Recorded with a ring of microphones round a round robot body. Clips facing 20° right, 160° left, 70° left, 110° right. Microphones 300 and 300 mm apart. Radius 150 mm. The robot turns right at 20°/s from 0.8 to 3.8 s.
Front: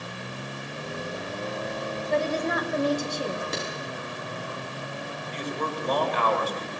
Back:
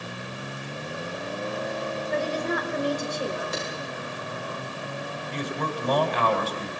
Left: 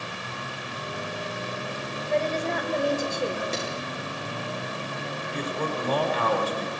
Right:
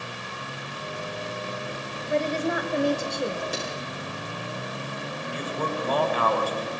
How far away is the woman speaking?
About 3 m.